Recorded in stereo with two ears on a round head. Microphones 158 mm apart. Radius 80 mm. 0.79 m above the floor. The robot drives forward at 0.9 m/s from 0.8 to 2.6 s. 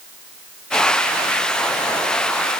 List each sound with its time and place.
Only background noise.